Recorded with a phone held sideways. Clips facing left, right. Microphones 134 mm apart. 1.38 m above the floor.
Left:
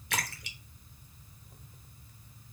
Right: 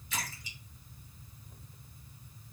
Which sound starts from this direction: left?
A splash, at 0.1 s.